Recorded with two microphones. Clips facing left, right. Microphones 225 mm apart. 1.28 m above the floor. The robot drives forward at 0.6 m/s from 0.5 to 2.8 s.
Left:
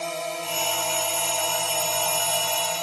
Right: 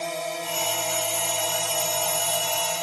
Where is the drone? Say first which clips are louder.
Even; 5° right (ahead or behind).